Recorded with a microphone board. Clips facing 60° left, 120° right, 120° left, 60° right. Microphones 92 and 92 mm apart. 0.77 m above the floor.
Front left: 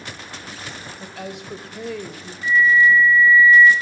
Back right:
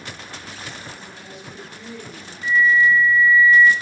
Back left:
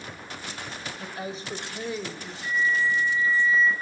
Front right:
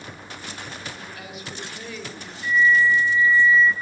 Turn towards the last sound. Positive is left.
turn(degrees=170)